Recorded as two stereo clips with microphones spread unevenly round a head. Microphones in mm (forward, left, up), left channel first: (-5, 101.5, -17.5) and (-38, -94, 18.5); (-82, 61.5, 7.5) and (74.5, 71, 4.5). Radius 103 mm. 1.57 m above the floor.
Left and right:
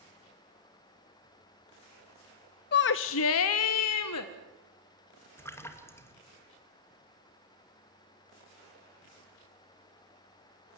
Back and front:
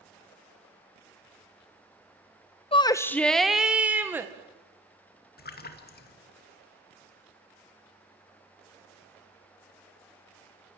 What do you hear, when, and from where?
2.7 s a shout: 125° left, 0.6 m; by 4.3 s 80° left, 1.6 m
5.4 s a splash: 160° left, 2.5 m